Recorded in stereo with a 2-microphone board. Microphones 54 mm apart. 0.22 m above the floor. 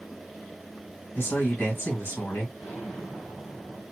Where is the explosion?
25° left (ahead or behind), 1.5 m.